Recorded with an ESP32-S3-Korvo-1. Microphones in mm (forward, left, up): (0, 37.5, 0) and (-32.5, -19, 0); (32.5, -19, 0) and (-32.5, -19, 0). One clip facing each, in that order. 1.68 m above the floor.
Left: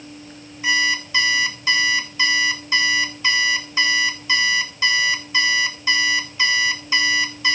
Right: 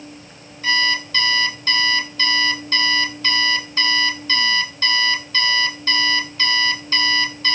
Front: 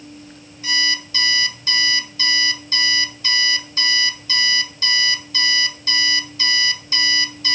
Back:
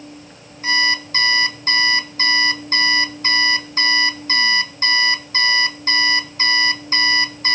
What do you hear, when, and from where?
0.6 s an alarm clock: 135° left, 1.4 m